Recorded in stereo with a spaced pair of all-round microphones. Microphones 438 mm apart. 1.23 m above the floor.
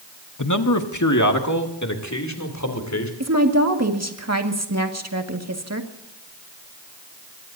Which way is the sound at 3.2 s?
35° right (ahead or behind).